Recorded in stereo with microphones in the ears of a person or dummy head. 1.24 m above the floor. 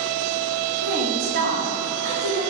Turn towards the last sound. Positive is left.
turn(degrees=-55)  # may be behind; listen again after turning